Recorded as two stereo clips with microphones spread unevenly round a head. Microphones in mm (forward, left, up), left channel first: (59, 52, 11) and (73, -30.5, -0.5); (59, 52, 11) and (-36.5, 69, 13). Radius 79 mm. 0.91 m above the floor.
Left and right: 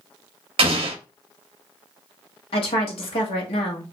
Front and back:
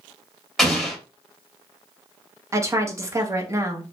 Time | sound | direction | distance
0.6 | an explosion | 95° right | 0.6 m
2.5 | a woman speaking | 110° left | 1.1 m